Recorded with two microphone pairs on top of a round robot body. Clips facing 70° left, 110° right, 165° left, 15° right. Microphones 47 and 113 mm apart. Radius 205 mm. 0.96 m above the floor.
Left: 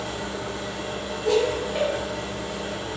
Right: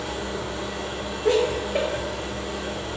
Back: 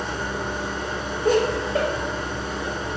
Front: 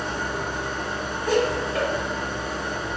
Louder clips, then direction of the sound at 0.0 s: Right 1 dB, even; 100° right.